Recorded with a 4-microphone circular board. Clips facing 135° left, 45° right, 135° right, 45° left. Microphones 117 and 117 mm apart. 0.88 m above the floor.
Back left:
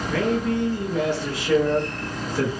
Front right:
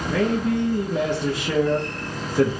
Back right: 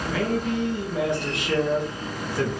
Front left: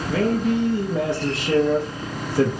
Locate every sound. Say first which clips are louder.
0.1 s a man speaking: front right 1 dB, front left 5 dB; 15° left, 0.8 m